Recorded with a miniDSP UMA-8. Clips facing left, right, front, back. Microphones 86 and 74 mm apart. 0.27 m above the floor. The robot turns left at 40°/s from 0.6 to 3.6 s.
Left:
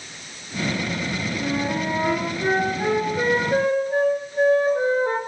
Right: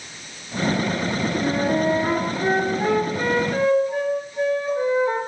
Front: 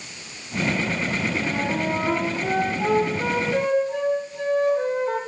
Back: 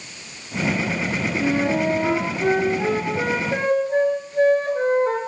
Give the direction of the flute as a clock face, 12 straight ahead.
4 o'clock.